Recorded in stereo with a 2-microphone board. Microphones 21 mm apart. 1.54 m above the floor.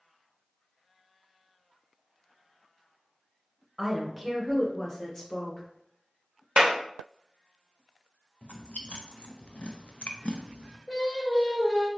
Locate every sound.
3.8 s a woman speaking: 10° right (ahead or behind), 1.1 m; by 5.7 s 30° left (ahead or behind), 2 m
6.6 s a clap: 50° right (ahead or behind), 0.7 m
8.4 s chewing: 75° left (ahead or behind), 0.6 m
10.9 s singing: 40° left (ahead or behind), 1.2 m